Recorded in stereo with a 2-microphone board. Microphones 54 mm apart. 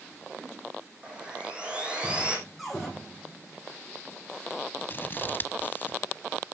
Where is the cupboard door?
Centre (ahead or behind), 7.5 m.